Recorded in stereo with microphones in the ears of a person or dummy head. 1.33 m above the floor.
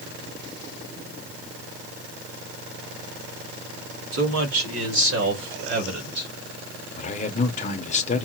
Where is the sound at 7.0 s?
35° left (ahead or behind), 0.6 m.